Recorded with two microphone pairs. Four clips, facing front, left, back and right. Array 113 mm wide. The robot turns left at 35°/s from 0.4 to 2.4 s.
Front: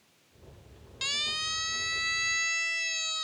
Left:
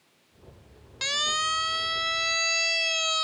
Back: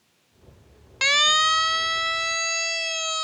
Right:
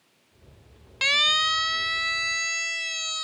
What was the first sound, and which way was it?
A siren, 160° right.